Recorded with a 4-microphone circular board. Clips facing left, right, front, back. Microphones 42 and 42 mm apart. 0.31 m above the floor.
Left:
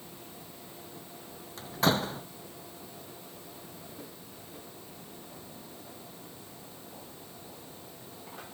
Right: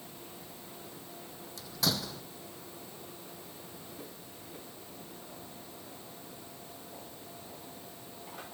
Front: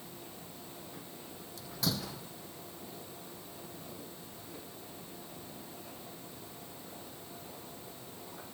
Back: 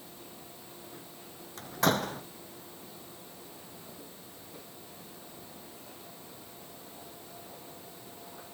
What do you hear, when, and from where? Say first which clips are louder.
1.6 s a door slam: left 7 dB, back 9 dB; 140° left